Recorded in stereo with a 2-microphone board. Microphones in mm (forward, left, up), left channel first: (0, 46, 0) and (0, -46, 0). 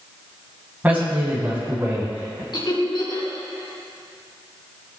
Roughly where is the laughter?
Left.